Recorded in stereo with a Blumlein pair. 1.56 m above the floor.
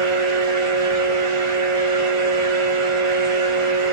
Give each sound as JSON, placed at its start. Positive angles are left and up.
{"t": 0.0, "sound": "a fan", "azimuth_deg": -45, "distance_m": 0.8}